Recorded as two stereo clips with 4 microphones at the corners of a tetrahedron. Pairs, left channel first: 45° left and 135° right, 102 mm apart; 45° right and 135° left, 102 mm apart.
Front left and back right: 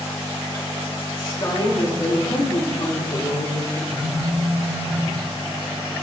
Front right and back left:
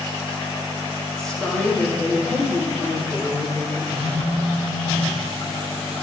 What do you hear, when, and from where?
1.2 s a woman speaking: 30° left, 1.3 m; by 3.8 s 20° left, 2.5 m
3.9 s a phone buzzing: 65° right, 3.5 m